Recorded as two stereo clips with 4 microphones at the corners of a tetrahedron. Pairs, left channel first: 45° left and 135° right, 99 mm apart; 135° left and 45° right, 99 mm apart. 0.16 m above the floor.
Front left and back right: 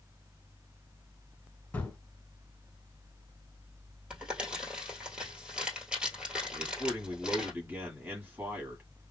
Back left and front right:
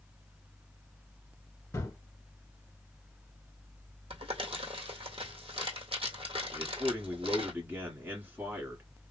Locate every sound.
1.7 s a gunshot: 110° left, 1.2 m
4.1 s crumpling: 55° right, 1.7 m
6.5 s a man speaking: 85° right, 1.5 m